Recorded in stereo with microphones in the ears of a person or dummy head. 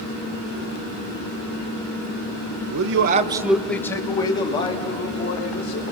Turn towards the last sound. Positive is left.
turn(degrees=40)  # may be behind; listen again after turning